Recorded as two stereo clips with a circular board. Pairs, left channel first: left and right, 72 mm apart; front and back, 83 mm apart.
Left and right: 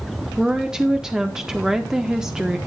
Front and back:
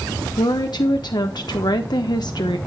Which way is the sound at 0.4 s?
10° right.